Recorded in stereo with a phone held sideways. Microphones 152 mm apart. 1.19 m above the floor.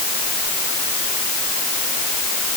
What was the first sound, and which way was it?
Only background noise.